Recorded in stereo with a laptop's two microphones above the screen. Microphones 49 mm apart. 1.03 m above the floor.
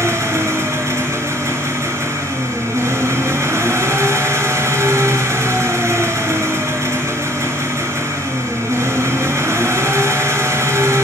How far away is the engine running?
About 6 m.